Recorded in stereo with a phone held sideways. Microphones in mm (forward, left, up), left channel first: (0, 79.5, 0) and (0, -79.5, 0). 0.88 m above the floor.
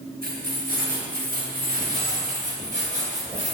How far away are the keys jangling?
About 3.5 m.